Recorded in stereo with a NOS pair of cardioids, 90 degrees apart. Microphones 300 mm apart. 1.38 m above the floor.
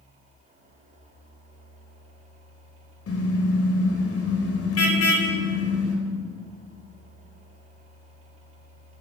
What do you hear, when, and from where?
0.0 s a fan: 25° right, 5 m
3.1 s a car horn: 50° left, 3.5 m